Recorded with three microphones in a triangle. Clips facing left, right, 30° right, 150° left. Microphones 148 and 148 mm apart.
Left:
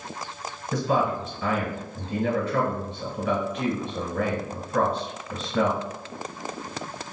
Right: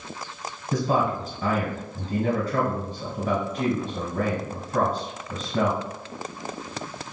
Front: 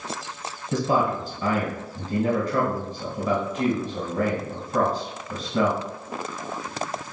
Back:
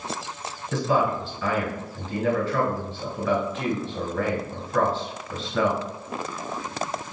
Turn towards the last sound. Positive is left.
turn(degrees=-85)